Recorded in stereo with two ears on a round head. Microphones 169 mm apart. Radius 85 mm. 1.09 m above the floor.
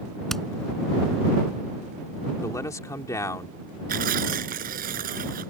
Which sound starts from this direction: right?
Tearing paper, at 3.9 s.